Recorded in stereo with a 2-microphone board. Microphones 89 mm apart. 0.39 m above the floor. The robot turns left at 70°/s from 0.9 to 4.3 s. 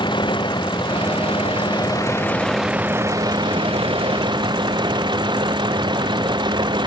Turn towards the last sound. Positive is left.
turn(degrees=-120)